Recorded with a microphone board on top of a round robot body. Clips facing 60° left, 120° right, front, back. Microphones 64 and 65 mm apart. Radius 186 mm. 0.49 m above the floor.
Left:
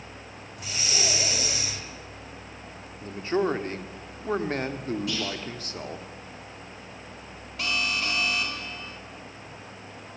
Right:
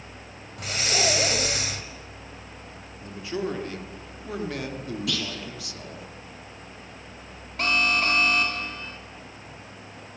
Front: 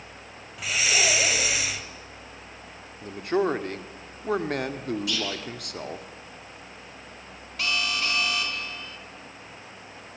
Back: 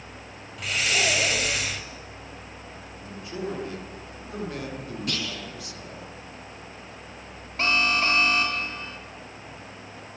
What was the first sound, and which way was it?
Breathing, 85° right.